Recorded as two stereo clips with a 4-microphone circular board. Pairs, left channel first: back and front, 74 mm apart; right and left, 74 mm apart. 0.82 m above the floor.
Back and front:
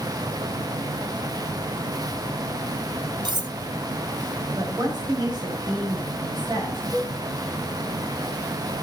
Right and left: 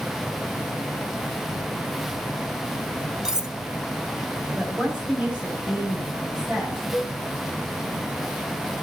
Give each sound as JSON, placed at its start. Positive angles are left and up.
{"t": 3.2, "sound": "cutlery clinking", "azimuth_deg": 10, "distance_m": 0.6}
{"t": 4.5, "sound": "a woman speaking", "azimuth_deg": 15, "distance_m": 4.5}
{"t": 6.9, "sound": "a cowbell", "azimuth_deg": 75, "distance_m": 8.0}